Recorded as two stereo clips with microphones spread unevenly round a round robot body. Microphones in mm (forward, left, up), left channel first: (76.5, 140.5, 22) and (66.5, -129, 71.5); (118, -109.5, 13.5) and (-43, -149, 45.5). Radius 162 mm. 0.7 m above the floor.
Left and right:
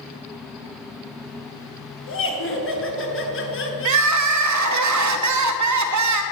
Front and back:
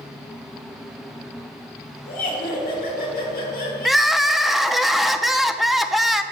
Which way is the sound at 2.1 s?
55° left.